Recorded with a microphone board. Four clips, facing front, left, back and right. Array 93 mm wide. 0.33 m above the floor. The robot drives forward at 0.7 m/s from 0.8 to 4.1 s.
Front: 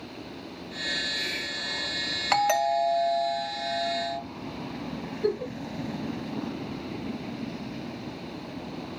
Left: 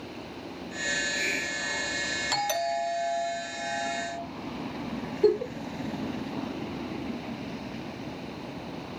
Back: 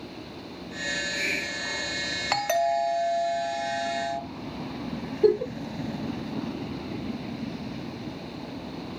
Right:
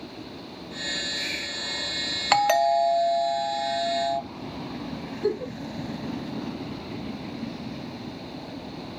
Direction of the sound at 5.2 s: 160° left.